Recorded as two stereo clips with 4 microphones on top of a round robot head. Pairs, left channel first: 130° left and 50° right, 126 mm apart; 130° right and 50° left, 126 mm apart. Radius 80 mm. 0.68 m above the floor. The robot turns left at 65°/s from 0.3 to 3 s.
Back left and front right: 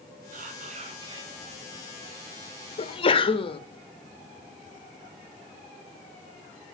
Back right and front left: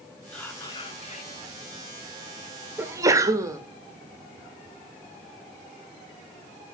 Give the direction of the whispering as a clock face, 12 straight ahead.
2 o'clock.